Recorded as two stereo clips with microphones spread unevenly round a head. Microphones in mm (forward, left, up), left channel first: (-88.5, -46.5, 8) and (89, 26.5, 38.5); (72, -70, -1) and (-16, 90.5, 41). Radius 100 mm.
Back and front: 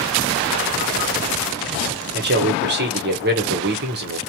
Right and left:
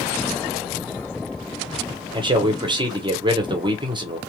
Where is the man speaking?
50° left, 1.0 m.